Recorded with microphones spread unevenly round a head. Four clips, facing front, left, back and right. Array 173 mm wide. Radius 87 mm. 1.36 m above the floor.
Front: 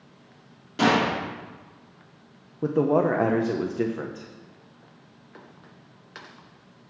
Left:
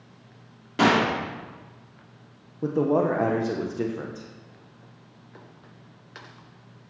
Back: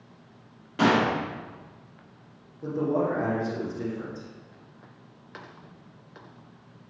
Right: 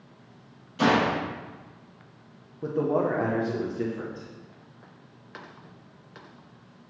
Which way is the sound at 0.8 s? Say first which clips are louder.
Left 2 dB, even; 75° left.